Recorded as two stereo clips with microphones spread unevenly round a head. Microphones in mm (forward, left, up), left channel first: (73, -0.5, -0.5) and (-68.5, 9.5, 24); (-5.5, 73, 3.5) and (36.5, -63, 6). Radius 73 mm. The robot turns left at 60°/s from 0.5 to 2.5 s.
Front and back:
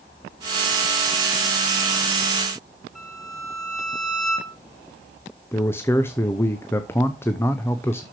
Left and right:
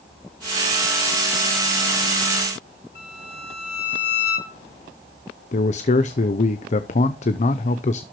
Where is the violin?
90° left, 6.5 m.